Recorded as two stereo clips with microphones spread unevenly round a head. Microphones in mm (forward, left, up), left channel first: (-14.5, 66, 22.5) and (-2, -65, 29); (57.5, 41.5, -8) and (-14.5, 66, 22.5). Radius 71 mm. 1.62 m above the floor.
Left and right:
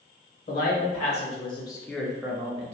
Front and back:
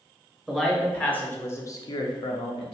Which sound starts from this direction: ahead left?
A man speaking, at 0.5 s.